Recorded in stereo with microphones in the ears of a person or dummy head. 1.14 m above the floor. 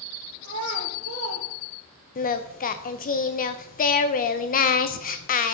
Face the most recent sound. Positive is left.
turn(degrees=40)  # may be behind; listen again after turning